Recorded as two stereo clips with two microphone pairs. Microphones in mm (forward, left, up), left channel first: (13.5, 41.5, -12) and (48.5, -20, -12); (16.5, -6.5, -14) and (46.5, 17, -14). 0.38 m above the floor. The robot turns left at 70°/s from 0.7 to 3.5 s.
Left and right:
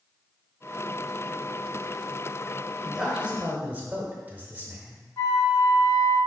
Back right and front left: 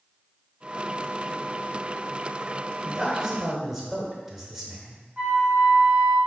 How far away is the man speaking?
About 0.9 m.